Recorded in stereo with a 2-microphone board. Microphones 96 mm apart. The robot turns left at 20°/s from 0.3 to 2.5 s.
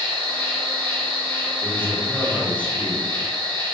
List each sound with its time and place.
0.0 s an insect: 75° right, 1.4 m; by 3.8 s 120° right, 1.4 m
1.6 s a man speaking: 20° left (ahead or behind), 0.7 m; by 3.1 s 15° left (ahead or behind), 0.7 m